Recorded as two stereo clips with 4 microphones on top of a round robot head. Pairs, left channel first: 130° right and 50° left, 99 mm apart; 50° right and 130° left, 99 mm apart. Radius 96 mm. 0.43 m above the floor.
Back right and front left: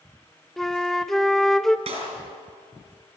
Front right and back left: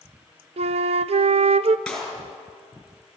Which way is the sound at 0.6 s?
145° left.